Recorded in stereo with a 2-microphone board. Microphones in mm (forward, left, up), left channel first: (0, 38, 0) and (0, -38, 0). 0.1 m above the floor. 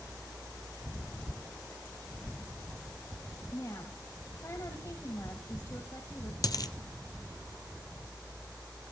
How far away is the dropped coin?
About 0.9 m.